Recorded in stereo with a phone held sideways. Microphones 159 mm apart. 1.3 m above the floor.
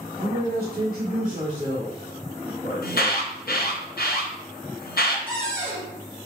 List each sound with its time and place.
0.2 s a man speaking: 90° right, 1.5 m; by 3.8 s 10° left (ahead or behind), 2.5 m
2.8 s an alarm: 75° left (ahead or behind), 0.7 m
5.3 s a cupboard door: 10° left (ahead or behind), 2 m